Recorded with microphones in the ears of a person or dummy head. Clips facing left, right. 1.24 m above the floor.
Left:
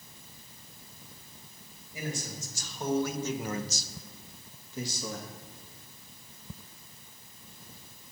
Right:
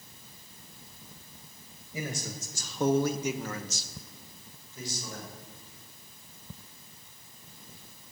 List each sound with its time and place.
1.9 s a man speaking: 75° right (ahead or behind), 1.9 m; by 5.3 s 70° left (ahead or behind), 3 m